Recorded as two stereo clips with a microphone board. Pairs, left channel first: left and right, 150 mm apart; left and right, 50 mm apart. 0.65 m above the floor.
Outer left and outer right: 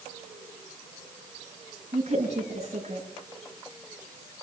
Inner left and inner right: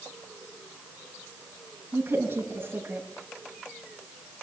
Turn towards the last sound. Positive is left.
turn(degrees=-50)  # may be behind; listen again after turning